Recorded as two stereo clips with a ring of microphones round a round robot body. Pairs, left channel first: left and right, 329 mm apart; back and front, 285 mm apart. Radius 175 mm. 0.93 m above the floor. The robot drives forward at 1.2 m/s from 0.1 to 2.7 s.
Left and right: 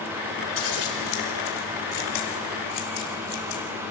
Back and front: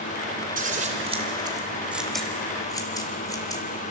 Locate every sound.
0.6 s scissors: 60° left, 4 m; by 3.6 s 100° left, 3.5 m